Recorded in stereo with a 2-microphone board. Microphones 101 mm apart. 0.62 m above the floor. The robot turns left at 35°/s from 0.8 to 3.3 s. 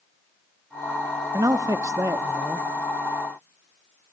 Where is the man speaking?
100° right, 0.6 m; by 2.7 s 145° right, 0.6 m.